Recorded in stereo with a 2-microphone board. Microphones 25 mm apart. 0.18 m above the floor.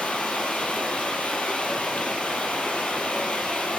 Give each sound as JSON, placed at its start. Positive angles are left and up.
{"t": 0.0, "sound": "running water", "side_deg": 70, "distance_m": 3.0}